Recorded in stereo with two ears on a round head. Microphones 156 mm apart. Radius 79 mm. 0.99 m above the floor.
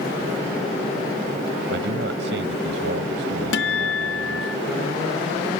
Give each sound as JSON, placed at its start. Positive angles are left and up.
{"t": 1.7, "sound": "a man speaking", "side_deg": -80}
{"t": 3.5, "sound": "a guitar", "side_deg": 65}